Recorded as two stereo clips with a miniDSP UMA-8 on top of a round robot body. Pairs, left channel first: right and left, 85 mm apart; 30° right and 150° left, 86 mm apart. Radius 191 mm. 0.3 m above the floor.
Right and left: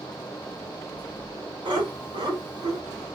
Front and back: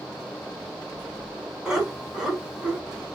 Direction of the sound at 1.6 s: 70° left.